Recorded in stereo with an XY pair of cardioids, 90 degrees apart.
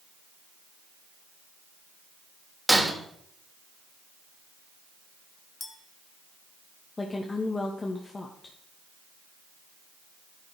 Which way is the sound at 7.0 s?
35° left.